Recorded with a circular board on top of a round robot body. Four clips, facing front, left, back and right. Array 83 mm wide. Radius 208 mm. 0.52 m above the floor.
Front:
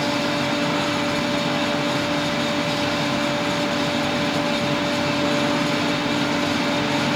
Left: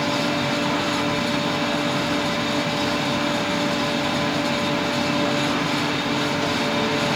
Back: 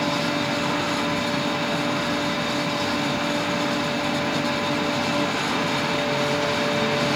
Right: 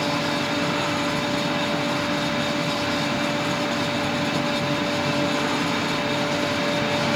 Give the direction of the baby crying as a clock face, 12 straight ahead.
I don't hear a baby crying.